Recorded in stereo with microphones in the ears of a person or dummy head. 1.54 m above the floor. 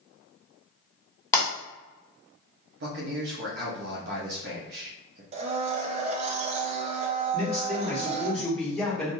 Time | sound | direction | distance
1.3 | breaking glass | 15° left (ahead or behind) | 1.6 m
2.8 | a man speaking | 65° right (ahead or behind) | 0.7 m
5.3 | a blender | 40° right (ahead or behind) | 0.5 m
7.3 | a man speaking | 5° left (ahead or behind) | 1.3 m